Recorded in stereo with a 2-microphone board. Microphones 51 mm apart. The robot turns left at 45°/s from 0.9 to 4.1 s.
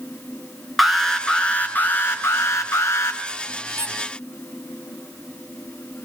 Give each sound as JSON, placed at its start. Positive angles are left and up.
{"t": 0.8, "sound": "an alarm", "azimuth_deg": 180, "distance_m": 3.0}
{"t": 3.8, "sound": "a squeak", "side_deg": -60, "distance_m": 1.3}